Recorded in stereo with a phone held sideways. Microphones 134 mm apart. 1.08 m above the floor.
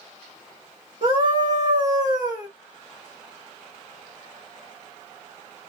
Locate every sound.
1.0 s a scream: 60° right (ahead or behind), 2 m